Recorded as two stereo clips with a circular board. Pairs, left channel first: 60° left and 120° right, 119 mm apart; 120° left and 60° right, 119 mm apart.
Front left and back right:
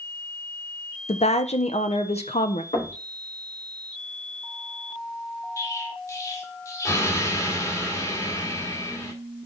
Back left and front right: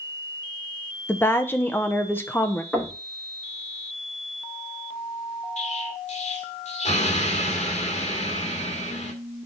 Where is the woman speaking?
50° left, 0.9 m.